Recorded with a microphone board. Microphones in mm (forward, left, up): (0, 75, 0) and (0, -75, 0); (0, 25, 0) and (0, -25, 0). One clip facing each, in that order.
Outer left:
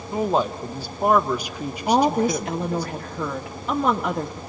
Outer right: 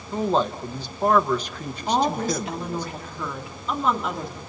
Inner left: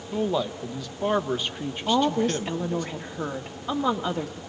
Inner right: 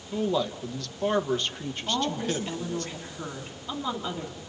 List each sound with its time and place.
0.1 s a man speaking: 10° left (ahead or behind), 1.1 m
1.9 s a woman speaking: 60° left (ahead or behind), 1.9 m